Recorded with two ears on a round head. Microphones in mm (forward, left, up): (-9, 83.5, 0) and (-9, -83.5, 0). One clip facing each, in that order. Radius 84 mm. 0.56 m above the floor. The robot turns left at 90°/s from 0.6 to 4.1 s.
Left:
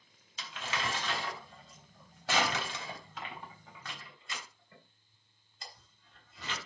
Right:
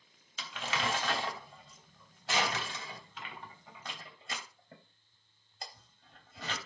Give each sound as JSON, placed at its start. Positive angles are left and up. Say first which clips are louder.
{"t": 0.4, "sound": "crumpling", "louder": "right 2 dB", "side_deg": -70, "distance_m": 3.0}